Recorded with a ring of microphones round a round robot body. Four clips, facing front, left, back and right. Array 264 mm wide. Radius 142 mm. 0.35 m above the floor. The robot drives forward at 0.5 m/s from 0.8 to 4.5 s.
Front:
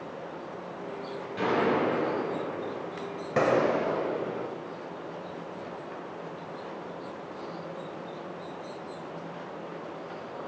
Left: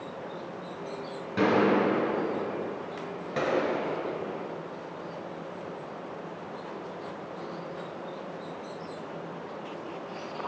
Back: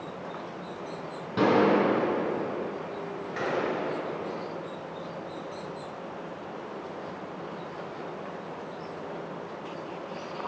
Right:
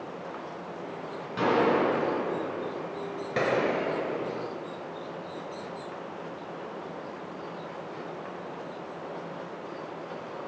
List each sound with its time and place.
1.4 s a gunshot: 155° left, 4 m; by 2.7 s 160° left, 4.5 m
3.4 s a gunshot: 15° right, 1.1 m; by 4.5 s 35° right, 0.7 m